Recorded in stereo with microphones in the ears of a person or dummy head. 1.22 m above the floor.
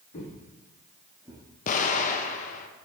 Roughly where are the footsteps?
Left.